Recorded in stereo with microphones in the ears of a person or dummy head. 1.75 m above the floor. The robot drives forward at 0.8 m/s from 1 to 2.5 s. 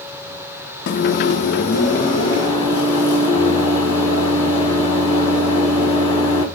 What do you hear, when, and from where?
0.9 s a microwave: 60° left (ahead or behind), 0.5 m; by 6.5 s 20° left (ahead or behind), 1.2 m